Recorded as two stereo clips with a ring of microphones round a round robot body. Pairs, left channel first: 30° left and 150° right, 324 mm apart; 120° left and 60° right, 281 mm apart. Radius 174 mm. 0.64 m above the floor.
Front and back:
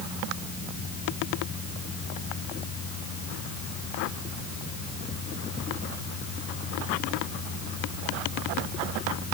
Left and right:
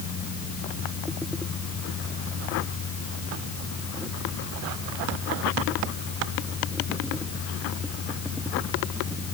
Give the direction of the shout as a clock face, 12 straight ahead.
I don't hear a shout.